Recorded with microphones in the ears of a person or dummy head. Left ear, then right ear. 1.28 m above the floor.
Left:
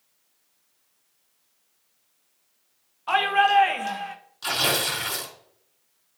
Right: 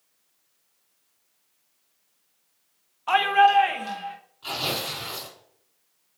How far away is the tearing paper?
About 3.5 m.